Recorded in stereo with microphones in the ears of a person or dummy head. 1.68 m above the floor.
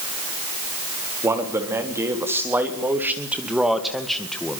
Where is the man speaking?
10° right (ahead or behind), 3.5 m; by 4.6 s 10° left (ahead or behind), 1.6 m.